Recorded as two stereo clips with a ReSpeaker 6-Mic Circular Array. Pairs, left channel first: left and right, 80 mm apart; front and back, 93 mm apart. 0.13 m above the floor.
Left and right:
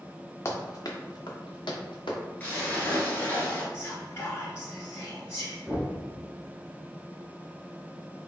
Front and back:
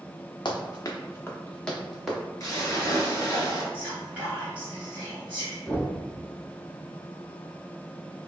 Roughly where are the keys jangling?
No keys jangling in this recording.